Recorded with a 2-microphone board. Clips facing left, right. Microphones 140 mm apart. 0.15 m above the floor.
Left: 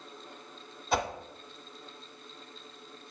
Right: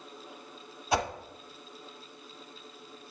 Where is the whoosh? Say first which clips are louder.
Right 1 dB; centre (ahead or behind), 1.5 m.